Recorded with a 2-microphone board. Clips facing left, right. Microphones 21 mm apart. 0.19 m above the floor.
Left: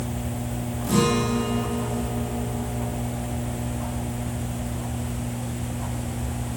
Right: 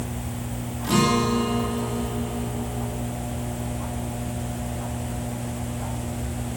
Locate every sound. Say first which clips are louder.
0.8 s a guitar: right 1 dB; 40° right (ahead or behind), 5.5 m